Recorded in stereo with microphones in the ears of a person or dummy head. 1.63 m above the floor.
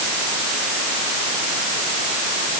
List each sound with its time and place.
Only background noise.